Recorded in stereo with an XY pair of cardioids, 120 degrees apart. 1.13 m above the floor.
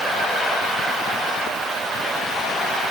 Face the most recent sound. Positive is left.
No sound to turn to.